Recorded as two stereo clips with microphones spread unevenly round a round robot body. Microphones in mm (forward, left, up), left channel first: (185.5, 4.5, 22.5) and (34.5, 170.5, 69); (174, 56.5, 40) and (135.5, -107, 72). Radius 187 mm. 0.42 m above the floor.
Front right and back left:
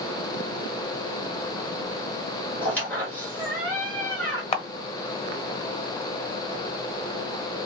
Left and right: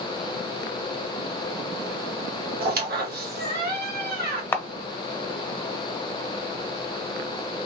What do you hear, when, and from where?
2.6 s a squeak: 120° right, 0.9 m
4.5 s a camera shutter: 5° left, 1.0 m